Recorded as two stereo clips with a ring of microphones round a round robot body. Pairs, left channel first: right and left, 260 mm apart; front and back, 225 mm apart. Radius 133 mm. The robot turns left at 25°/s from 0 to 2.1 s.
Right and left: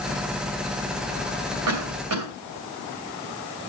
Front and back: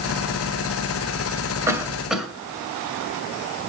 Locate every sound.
1.7 s a cough: 105° left, 2.5 m; by 2.3 s 90° left, 2.5 m